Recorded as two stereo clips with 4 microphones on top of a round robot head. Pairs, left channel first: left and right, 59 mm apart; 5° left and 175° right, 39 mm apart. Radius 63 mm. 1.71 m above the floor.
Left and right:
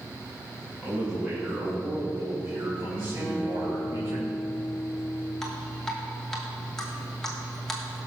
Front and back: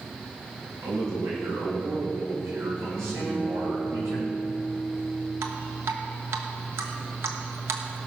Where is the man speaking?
165° right, 3 m; by 4.2 s 155° right, 5 m.